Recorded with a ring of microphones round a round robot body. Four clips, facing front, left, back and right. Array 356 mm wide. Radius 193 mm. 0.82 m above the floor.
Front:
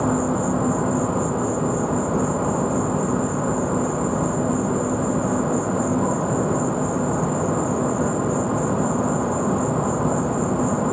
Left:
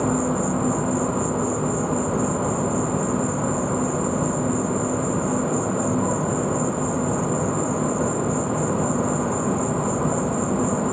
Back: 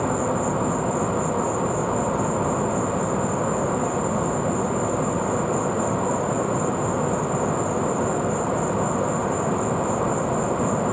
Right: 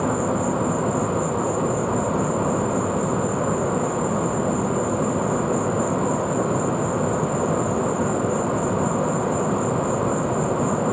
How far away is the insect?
About 0.8 m.